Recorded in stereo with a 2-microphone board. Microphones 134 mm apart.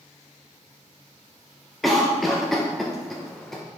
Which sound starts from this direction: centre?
A cough, at 1.8 s.